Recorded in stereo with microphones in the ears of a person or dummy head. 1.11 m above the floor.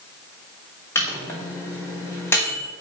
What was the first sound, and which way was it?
A microwave, 10° left (ahead or behind).